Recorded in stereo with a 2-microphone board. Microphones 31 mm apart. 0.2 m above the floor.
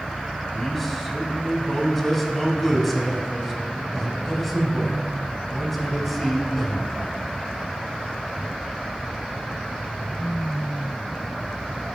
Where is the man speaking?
Centre (ahead or behind), 1.1 m.